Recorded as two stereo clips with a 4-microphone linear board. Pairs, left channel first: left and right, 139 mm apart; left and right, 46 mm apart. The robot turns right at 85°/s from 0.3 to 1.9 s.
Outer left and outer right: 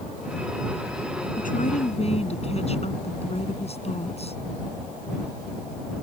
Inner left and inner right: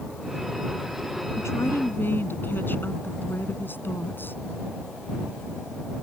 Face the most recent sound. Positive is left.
turn(degrees=130)